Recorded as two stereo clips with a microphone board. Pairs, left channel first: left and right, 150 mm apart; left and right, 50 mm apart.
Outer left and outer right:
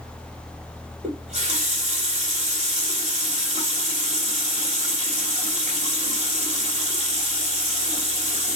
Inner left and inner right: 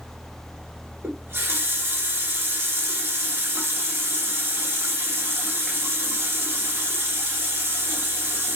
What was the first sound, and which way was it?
A running tap, 45° right (ahead or behind).